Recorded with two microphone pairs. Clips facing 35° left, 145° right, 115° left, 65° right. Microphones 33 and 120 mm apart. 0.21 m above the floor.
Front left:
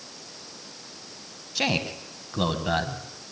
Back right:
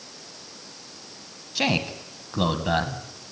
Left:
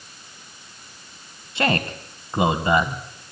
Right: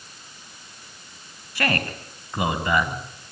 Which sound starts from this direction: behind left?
A man speaking, at 1.6 s.